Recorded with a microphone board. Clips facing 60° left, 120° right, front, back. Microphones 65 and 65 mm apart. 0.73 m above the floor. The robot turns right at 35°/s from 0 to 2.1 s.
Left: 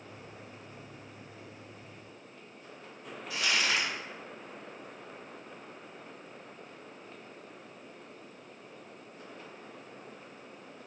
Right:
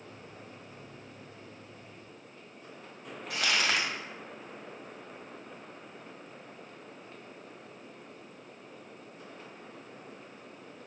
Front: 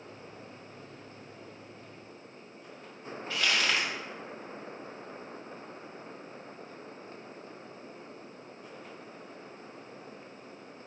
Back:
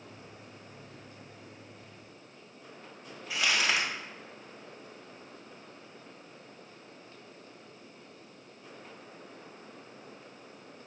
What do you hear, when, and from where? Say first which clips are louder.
3.3 s crumpling: right 1 dB, even; 105° right, 1.9 m